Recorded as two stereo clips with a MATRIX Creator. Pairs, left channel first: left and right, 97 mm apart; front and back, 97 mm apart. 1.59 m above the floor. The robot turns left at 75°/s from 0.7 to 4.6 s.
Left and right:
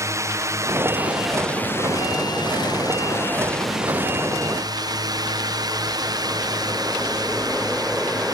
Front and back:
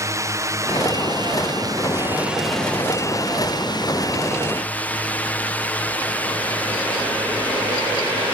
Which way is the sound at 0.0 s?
135° right.